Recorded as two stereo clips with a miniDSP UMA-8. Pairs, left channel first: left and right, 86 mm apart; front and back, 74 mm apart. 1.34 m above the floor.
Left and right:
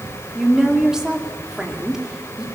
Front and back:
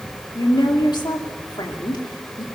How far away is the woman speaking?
About 2.5 m.